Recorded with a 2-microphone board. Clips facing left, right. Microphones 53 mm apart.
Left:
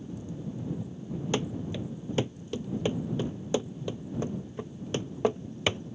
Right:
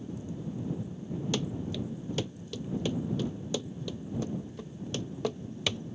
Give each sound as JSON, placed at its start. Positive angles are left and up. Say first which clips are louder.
{"t": 1.3, "sound": "running footsteps", "louder": "left 4 dB", "side_deg": 25}